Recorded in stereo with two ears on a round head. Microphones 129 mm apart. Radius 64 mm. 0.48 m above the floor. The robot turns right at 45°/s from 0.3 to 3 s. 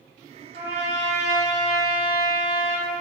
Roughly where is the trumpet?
Ahead right.